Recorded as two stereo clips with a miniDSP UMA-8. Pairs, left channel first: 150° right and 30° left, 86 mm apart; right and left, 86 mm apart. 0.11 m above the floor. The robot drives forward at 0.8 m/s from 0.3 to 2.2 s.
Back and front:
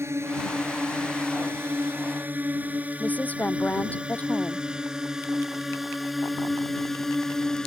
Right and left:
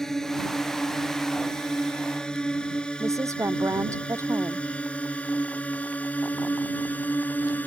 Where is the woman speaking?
140° left.